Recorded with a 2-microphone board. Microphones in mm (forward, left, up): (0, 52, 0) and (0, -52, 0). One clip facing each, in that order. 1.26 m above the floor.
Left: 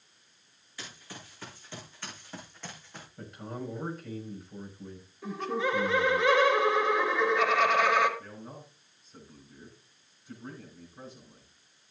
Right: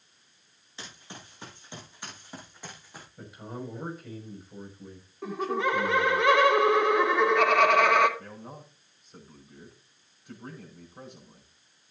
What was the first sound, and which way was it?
Running footsteps, 25° right (ahead or behind).